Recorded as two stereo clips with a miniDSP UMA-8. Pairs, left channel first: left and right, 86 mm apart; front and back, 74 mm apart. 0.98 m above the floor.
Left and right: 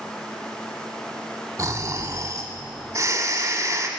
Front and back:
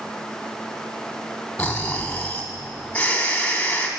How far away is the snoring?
About 1.1 m.